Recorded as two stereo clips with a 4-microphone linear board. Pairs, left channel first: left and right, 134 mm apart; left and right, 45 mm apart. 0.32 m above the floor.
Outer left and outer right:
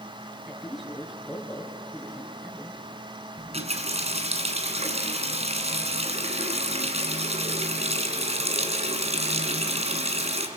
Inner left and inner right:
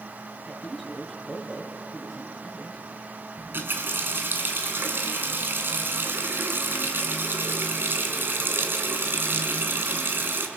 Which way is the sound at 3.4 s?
55° right (ahead or behind).